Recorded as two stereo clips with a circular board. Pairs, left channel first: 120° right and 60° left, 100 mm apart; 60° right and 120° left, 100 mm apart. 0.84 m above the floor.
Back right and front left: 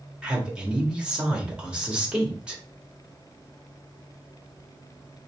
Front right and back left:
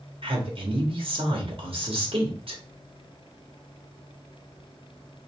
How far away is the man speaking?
About 1.4 m.